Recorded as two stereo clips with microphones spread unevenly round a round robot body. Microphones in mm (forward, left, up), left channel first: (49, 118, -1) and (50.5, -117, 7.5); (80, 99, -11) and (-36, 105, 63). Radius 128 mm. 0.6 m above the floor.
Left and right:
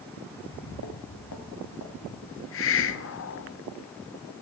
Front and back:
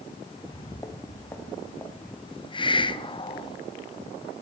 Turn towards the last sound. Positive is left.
turn(degrees=65)